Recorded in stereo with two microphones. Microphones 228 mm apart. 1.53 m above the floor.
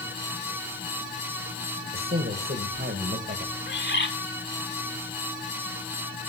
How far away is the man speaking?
About 2 m.